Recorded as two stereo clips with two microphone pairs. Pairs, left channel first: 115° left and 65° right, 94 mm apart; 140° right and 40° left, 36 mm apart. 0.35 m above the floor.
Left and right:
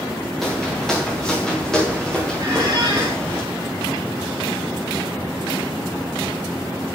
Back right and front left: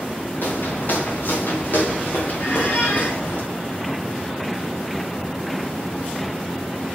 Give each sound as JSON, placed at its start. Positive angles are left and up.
{"t": 0.4, "sound": "footsteps", "azimuth_deg": -155, "distance_m": 2.5}
{"t": 2.4, "sound": "a squeak", "azimuth_deg": -115, "distance_m": 6.5}